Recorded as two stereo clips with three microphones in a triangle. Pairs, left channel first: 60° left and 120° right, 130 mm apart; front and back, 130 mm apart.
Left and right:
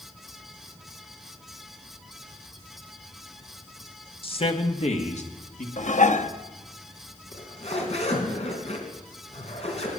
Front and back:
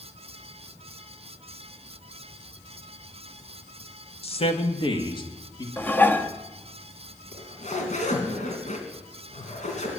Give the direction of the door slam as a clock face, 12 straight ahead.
I don't hear a door slam.